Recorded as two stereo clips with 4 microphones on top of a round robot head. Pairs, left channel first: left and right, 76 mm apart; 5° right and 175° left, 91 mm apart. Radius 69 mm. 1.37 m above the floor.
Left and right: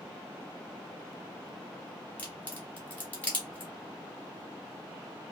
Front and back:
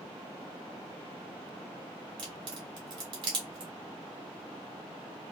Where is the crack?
155° left, 1.3 m.